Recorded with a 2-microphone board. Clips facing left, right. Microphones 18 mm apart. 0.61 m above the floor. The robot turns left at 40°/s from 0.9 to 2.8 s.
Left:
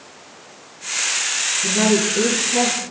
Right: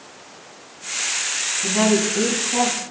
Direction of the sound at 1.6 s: 75° right.